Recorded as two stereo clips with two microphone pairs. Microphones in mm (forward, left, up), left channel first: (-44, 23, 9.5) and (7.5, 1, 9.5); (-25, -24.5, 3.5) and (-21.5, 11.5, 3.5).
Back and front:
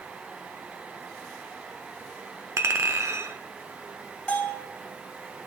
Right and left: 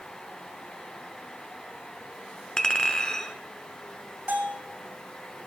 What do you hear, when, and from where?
2.6 s a clink: 30° right, 0.9 m
4.3 s a bell: 95° left, 2.5 m